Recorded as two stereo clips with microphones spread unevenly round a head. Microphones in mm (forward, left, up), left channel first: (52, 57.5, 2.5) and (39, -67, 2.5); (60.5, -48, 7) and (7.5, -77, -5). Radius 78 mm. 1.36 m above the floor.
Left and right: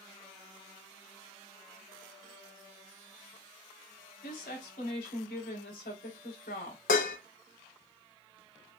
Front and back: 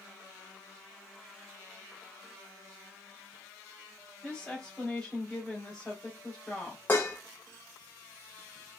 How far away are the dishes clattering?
About 1.1 m.